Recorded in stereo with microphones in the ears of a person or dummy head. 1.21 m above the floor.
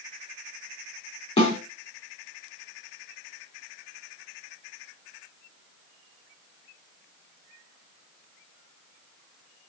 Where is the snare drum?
25° left (ahead or behind), 3.5 m.